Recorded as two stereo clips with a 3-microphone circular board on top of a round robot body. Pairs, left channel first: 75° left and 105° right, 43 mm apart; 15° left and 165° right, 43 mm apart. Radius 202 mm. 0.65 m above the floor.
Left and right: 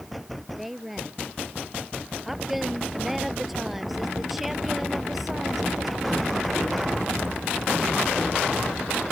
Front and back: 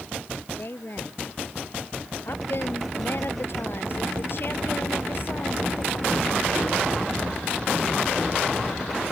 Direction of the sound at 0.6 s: 20° right.